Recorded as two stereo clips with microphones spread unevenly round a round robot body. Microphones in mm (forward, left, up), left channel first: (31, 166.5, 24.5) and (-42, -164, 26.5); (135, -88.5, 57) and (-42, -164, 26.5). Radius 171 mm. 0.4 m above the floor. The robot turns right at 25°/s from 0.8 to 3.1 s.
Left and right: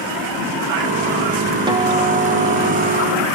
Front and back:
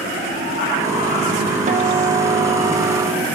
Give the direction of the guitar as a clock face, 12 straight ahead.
6 o'clock.